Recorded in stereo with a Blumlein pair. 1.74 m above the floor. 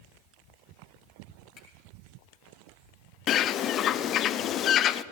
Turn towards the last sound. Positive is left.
turn(degrees=30)